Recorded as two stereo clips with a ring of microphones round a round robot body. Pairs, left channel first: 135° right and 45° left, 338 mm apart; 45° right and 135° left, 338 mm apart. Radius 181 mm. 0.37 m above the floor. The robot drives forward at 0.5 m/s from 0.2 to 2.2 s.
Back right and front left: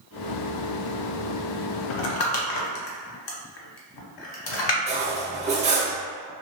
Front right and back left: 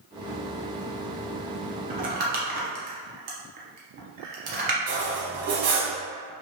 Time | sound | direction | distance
1.9 | crumpling | 160° right | 0.5 m
4.9 | cutlery clinking | 110° left | 0.8 m